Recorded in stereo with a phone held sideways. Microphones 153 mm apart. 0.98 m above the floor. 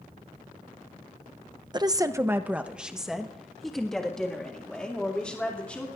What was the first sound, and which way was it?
A woman speaking, 30° right (ahead or behind).